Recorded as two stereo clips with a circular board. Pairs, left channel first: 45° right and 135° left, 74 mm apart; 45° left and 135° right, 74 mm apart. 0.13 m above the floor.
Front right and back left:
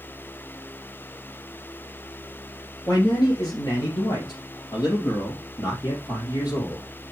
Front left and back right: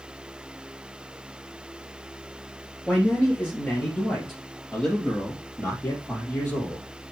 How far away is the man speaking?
About 2 m.